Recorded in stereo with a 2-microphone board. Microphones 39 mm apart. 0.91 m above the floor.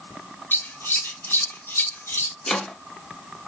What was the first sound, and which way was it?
Scissors, 70° left (ahead or behind).